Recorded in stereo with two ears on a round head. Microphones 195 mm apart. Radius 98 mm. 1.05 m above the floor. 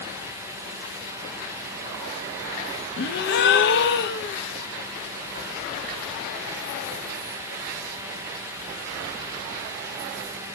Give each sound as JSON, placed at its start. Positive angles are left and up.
{"t": 3.0, "sound": "a gasp", "side_deg": 50, "distance_m": 0.5}